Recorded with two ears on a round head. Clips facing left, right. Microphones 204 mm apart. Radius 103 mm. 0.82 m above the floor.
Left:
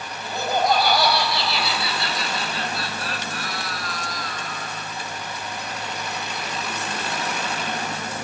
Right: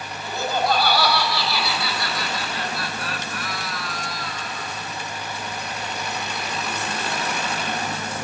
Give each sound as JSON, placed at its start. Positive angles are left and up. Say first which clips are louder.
{"t": 0.2, "sound": "laughter", "louder": "left 1 dB", "side_deg": 15, "distance_m": 5.0}